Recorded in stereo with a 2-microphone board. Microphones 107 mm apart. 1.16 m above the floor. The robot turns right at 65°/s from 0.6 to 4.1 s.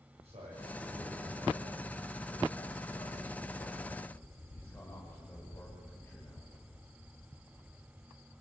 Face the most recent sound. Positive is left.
turn(degrees=165)